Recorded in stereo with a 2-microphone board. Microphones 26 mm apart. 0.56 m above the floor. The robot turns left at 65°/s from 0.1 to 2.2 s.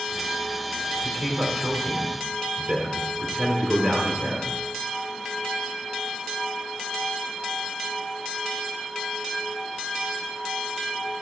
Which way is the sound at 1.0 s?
Straight ahead.